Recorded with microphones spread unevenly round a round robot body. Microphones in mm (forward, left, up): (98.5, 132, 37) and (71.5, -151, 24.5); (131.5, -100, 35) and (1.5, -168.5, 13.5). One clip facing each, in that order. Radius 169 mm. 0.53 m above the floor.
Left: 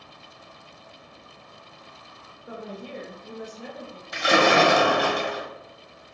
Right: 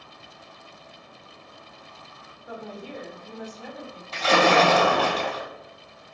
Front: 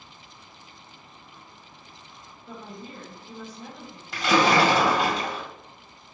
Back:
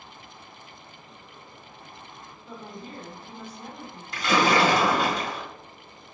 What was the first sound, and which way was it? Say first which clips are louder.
A woman speaking: left 1 dB, even; 40° left.